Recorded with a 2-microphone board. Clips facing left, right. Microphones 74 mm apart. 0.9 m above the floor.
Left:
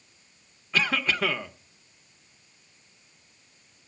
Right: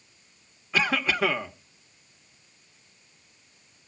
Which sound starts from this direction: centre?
A cough, at 0.7 s.